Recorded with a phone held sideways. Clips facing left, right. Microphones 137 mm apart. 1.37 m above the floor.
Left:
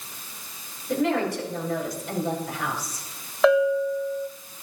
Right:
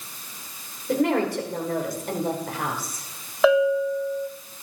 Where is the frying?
I don't hear frying.